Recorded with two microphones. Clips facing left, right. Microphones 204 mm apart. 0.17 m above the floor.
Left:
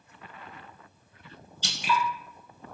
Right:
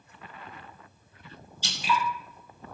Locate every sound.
1.6 s dripping: 65° left (ahead or behind), 0.9 m